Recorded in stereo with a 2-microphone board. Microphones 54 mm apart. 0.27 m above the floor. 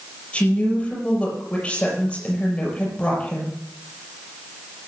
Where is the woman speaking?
20° left (ahead or behind), 6 m.